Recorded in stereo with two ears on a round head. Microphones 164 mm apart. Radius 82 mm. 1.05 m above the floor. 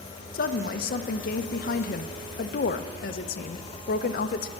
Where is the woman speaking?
50° left (ahead or behind), 0.6 m.